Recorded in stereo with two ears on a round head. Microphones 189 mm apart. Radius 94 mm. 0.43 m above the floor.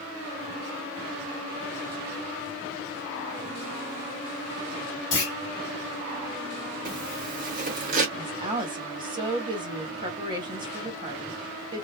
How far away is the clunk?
About 1.5 m.